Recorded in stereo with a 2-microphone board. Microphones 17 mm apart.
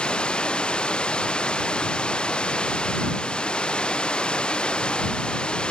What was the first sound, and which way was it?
Running water, 60° left (ahead or behind).